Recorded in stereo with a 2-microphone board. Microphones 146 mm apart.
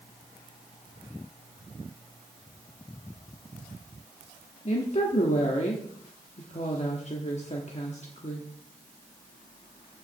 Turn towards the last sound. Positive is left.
turn(degrees=45)  # may be behind; listen again after turning